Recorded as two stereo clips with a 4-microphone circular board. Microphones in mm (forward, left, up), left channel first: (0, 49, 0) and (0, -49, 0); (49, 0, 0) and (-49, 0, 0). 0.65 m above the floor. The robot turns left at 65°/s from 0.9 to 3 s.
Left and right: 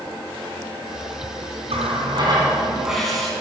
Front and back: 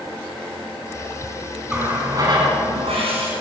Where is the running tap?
95° right, 3.5 m; by 3.3 s straight behind, 3.5 m.